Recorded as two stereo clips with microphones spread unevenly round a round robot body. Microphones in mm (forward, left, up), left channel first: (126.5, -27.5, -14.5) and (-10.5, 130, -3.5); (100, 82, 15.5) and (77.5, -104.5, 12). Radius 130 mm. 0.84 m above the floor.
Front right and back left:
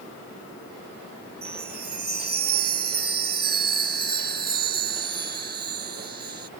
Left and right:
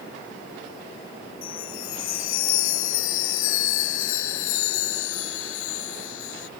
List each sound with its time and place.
1.4 s a chime: 90° left